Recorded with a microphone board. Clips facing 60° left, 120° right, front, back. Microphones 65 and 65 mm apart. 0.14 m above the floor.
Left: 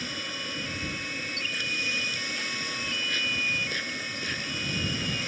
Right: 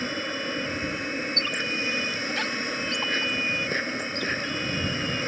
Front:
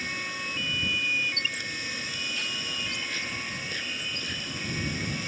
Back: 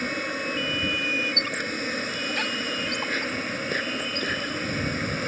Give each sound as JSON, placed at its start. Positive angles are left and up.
{"t": 0.0, "sound": "an insect", "azimuth_deg": -165}
{"t": 1.4, "sound": "a squeak", "azimuth_deg": -145}